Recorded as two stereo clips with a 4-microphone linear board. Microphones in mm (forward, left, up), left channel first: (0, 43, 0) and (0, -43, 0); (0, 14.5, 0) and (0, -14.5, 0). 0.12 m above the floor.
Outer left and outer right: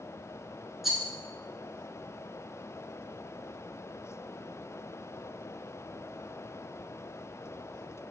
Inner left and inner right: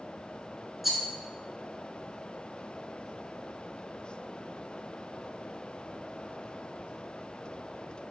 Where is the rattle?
5° right (ahead or behind), 0.6 m.